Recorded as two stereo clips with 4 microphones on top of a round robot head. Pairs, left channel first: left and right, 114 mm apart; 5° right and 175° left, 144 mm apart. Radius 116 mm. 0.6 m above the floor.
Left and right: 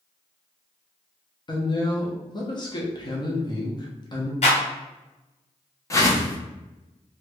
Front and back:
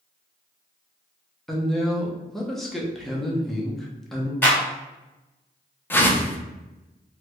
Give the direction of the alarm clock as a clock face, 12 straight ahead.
I don't hear an alarm clock.